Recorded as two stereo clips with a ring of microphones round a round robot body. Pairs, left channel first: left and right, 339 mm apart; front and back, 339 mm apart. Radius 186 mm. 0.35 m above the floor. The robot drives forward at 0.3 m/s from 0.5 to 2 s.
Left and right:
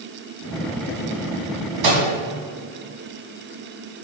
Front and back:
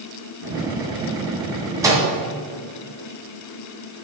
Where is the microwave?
100° right, 2 m.